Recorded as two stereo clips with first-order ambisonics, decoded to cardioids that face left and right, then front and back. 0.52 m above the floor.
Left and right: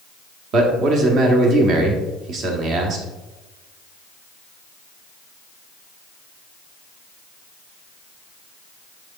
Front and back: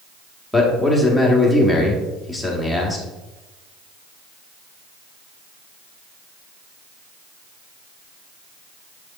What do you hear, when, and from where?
0.5 s a man speaking: 90° right, 1.3 m